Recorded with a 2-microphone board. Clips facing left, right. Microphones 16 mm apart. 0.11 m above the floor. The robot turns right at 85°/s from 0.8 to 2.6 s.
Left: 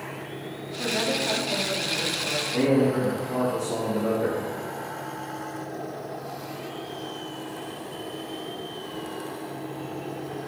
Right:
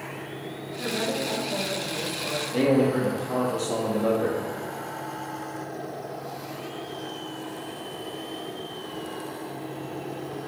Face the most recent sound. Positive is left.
turn(degrees=-55)  # may be behind; listen again after turning